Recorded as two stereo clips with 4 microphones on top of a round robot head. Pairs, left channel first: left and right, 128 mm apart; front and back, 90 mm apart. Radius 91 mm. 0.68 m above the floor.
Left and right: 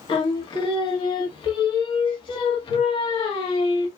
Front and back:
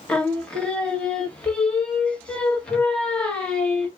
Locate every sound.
0.1 s singing: 75° left, 1.5 m